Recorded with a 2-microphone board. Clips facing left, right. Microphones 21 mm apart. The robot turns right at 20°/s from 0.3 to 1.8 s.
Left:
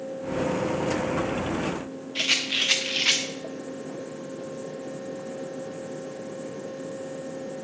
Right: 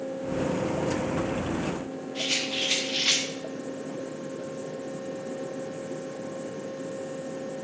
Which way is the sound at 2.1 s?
70° left (ahead or behind).